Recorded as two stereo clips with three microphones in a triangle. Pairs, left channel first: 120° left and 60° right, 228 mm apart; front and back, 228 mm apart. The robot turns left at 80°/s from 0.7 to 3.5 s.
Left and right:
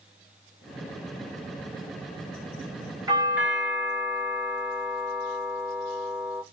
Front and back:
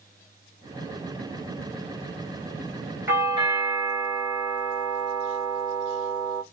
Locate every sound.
3.1 s a doorbell: 110° right, 1.4 m; by 6.4 s 145° right, 1.4 m